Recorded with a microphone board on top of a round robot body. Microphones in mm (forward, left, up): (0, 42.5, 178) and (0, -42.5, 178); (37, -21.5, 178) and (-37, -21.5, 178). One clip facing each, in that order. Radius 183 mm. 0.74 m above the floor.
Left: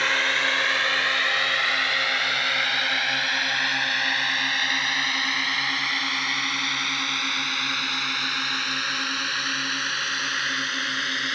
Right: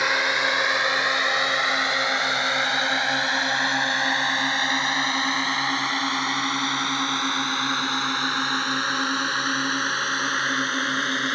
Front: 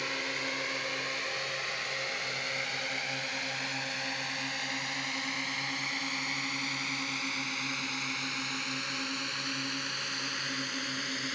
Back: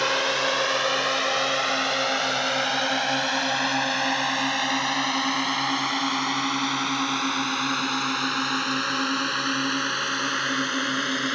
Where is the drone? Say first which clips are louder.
Right 2 dB, back 12 dB; 165° right; by 11.3 s 150° right.